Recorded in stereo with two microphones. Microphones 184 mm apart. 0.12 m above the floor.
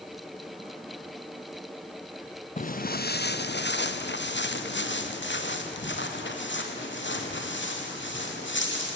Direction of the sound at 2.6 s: 45° left (ahead or behind).